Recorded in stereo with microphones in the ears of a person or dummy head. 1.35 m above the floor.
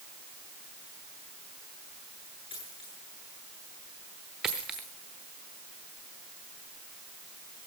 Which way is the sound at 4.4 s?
5° right (ahead or behind).